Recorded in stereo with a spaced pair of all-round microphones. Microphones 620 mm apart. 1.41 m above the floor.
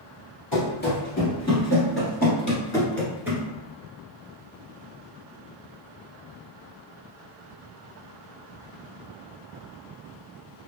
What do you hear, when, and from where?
0.5 s running footsteps: 35° left (ahead or behind), 1.9 m; by 3.5 s 5° right (ahead or behind), 1.5 m